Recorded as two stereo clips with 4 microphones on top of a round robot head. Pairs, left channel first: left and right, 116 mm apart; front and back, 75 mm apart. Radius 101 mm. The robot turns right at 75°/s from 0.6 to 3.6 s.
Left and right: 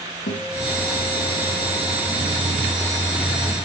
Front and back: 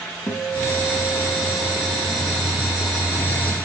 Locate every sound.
0.3 s a guitar: 60° left, 3.5 m; by 2.4 s 165° right, 3.5 m